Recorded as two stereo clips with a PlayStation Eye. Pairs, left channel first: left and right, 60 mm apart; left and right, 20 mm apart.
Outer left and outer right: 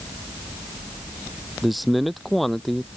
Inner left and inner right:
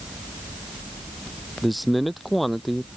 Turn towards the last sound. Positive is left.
turn(degrees=5)  # may be behind; listen again after turning